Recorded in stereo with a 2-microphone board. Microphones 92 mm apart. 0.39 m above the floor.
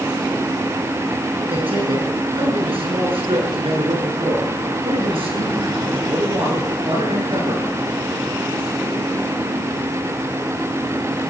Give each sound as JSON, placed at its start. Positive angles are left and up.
{"t": 1.5, "sound": "a man speaking", "side_deg": -75, "distance_m": 5.0}